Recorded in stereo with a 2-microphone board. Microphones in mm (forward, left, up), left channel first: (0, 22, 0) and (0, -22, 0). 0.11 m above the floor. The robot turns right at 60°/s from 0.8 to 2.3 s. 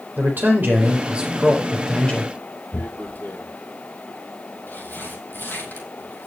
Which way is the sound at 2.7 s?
50° left (ahead or behind).